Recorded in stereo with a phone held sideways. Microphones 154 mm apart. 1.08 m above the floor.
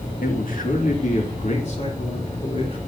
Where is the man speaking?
75° left (ahead or behind), 2 m; by 2.8 s 45° left (ahead or behind), 4.5 m.